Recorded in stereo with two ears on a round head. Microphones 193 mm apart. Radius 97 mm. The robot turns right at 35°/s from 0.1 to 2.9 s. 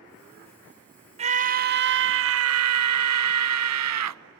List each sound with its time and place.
1.2 s a scream: 150° right, 0.9 m; by 4.2 s 90° right, 0.9 m